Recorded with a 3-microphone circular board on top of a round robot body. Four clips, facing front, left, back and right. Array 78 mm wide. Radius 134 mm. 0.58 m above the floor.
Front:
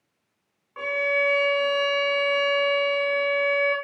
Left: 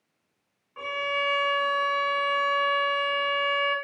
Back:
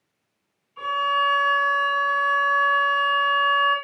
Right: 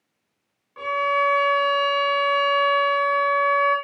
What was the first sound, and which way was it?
A violin, 5° right.